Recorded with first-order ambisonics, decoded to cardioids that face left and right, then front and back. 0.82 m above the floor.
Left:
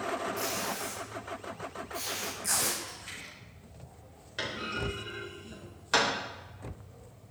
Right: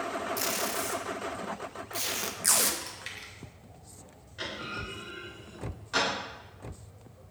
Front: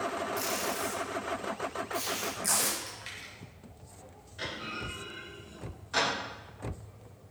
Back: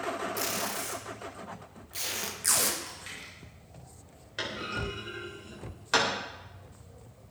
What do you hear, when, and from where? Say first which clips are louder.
0.4 s tape being pulled: right 2 dB, front 1 dB; 115° right, 0.9 m
2.8 s chewing: right 2 dB, even; 80° right, 2.5 m
4.4 s a clunk: left 2 dB, back 3 dB; 145° left, 3 m